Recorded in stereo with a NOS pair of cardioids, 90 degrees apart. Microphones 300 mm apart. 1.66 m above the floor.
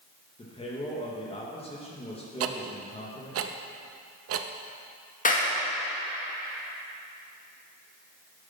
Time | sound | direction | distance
0.4 | a man speaking | 20° left | 2 m
2.4 | ticking | 55° right | 0.8 m
5.2 | a clap | 30° left | 2 m